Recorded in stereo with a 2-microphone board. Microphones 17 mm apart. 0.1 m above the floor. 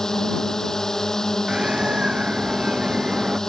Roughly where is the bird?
Right.